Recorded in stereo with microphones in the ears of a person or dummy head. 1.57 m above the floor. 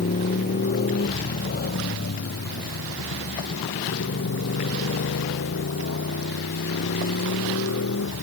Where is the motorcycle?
45° left (ahead or behind); by 8.2 s 75° left (ahead or behind).